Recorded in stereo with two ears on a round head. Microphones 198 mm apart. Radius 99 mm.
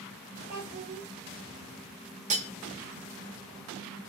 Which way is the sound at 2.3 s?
35° right (ahead or behind).